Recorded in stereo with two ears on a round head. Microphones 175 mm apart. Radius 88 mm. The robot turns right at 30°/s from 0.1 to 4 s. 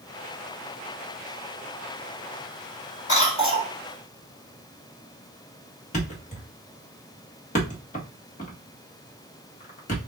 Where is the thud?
35° left (ahead or behind), 1.4 m.